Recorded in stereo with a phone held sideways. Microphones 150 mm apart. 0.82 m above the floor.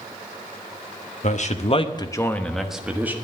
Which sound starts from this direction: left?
A man speaking, at 1.2 s.